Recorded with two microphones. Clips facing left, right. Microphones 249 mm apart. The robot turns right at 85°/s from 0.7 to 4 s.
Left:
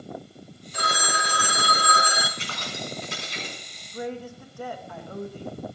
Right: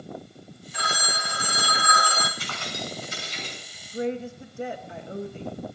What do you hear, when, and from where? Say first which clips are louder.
0.7 s a phone ringing: left 3 dB; 45° left, 1.2 m; by 2.3 s 175° left, 1.2 m
2.4 s keys jangling: even; 25° left, 6 m; by 3.6 s 125° left, 6 m
3.9 s a woman speaking: right 4 dB; 25° right (ahead or behind), 1.3 m